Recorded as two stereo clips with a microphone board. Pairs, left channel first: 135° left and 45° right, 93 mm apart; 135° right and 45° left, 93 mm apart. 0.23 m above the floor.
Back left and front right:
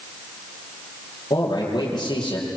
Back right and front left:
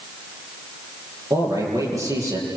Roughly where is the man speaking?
Left.